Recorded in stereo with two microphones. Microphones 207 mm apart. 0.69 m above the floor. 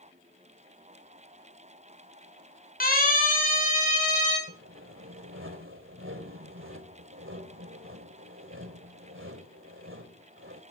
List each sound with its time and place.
2.8 s a siren: 45° left (ahead or behind), 7 m; by 4.4 s 35° left (ahead or behind), 9 m
4.5 s sawing: 80° right, 2.5 m